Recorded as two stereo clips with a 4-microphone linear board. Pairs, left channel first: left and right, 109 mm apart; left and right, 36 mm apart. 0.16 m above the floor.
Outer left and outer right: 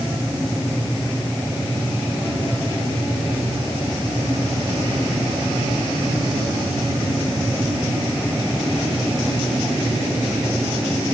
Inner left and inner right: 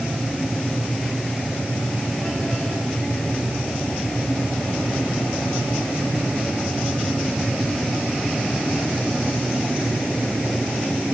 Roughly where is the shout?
No shout in this recording.